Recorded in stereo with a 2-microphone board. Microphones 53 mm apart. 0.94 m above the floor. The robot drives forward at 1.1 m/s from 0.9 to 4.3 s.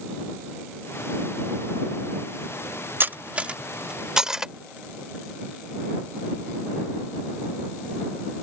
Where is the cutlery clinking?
40° right (ahead or behind); by 4.5 s 10° right (ahead or behind).